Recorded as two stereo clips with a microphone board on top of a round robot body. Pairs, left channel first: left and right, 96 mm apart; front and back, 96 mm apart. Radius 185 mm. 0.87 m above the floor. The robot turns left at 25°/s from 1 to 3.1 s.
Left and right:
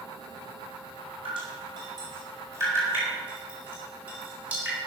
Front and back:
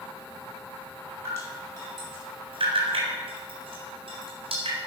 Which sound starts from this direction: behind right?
Dripping, at 1.2 s.